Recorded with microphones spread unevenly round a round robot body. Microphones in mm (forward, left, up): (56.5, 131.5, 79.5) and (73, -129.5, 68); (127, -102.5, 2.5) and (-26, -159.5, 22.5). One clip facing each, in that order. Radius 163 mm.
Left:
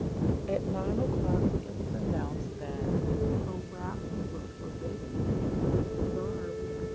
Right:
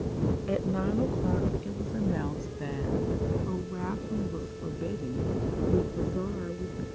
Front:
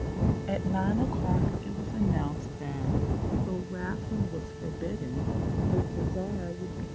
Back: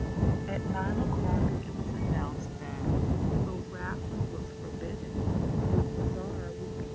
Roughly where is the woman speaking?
Ahead.